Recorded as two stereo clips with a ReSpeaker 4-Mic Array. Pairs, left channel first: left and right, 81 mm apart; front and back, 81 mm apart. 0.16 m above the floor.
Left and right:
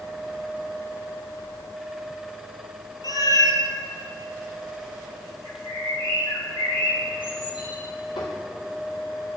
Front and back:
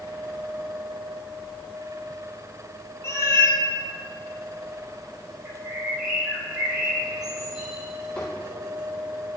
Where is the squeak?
75° left, 3 m.